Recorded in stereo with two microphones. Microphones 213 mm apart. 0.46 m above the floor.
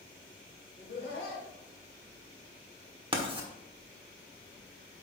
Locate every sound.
0.8 s laughter: 60° left (ahead or behind), 2 m
3.1 s writing: 25° right (ahead or behind), 1.2 m